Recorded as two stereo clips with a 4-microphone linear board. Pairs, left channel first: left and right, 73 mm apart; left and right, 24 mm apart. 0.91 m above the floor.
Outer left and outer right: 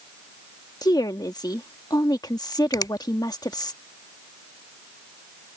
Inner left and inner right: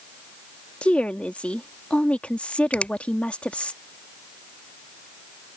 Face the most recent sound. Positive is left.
turn(degrees=65)  # may be behind; listen again after turning